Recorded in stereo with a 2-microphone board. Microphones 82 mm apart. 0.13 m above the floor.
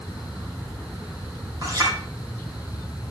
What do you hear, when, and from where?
1.6 s a clink: 50° right (ahead or behind), 3.5 m